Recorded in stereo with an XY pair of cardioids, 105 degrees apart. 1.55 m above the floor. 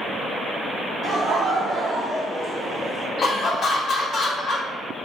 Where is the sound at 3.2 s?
45° left, 0.7 m.